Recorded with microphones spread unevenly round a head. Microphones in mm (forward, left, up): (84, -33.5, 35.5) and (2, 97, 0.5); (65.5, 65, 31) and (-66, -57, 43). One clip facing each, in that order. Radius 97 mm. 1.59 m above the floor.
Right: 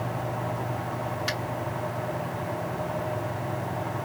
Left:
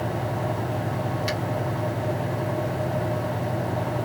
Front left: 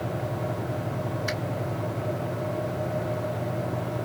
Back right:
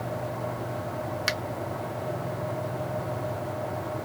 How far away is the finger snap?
About 1.2 m.